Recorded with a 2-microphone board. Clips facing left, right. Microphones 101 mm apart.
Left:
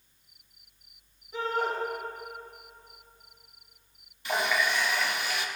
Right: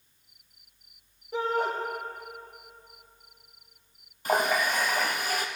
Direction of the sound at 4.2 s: 45° right (ahead or behind).